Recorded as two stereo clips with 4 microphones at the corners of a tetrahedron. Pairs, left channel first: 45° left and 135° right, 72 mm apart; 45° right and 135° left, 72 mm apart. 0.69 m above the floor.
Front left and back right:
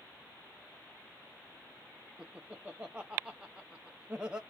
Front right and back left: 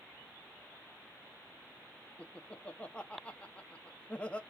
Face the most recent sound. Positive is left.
turn(degrees=-85)